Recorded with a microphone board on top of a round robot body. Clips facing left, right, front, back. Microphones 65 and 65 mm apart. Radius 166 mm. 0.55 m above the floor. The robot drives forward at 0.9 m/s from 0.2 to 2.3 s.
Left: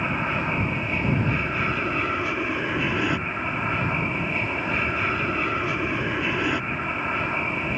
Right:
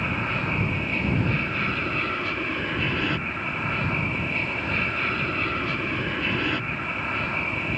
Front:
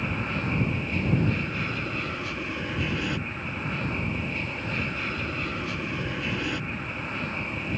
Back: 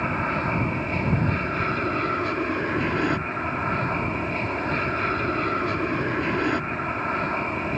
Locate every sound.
0.0 s an aircraft: 160° left; by 7.8 s 165° left